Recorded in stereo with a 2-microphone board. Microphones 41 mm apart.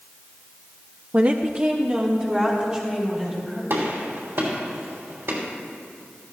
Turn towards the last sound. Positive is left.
turn(degrees=-80)